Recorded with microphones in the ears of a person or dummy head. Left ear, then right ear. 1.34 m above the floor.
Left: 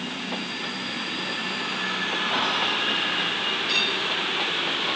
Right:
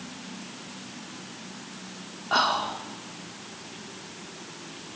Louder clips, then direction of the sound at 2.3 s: Right 3 dB; 70° right (ahead or behind).